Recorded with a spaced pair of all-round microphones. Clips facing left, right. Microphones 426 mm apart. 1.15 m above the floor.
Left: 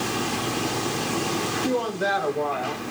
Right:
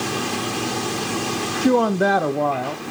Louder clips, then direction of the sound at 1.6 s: Right 10 dB; 75° right (ahead or behind).